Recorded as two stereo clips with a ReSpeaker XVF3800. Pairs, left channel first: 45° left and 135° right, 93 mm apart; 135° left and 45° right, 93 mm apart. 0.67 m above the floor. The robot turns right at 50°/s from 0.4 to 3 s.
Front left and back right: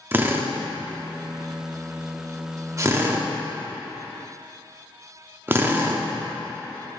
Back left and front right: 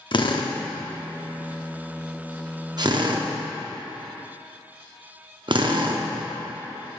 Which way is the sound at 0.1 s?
160° left.